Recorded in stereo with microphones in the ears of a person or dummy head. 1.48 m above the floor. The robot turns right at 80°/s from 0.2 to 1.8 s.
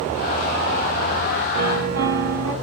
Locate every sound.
1.5 s a piano: 40° right (ahead or behind), 1.2 m; by 2.5 s 60° right (ahead or behind), 1.2 m